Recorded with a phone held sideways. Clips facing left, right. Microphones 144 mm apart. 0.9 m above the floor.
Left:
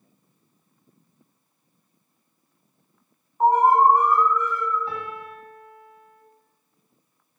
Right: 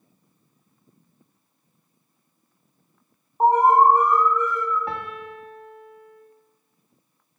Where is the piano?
70° right (ahead or behind), 1.2 m.